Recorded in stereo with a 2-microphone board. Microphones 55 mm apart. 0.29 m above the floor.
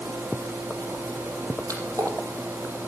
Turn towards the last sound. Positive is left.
turn(degrees=-85)